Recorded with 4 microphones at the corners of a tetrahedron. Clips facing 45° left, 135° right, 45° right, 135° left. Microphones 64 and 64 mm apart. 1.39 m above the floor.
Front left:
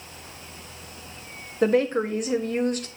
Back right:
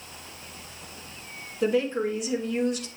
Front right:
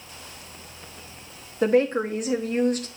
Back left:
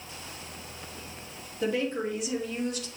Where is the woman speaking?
Straight ahead, 1.2 m.